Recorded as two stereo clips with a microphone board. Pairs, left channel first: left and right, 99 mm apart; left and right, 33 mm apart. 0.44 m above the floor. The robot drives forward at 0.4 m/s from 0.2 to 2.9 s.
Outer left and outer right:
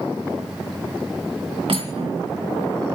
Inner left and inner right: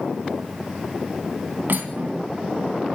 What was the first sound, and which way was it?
Cutlery clinking, 70° right (ahead or behind).